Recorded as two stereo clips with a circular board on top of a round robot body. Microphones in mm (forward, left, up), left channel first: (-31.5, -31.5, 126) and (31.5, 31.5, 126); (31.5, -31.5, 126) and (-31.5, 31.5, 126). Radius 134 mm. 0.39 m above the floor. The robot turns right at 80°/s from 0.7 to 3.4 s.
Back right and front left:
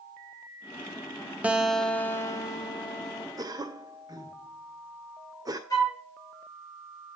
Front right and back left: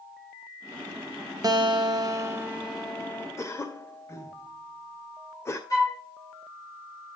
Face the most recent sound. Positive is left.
turn(degrees=-90)